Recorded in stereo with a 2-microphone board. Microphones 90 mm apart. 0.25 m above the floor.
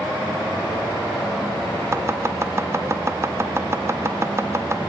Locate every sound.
1.9 s chopping: 30° right (ahead or behind), 0.8 m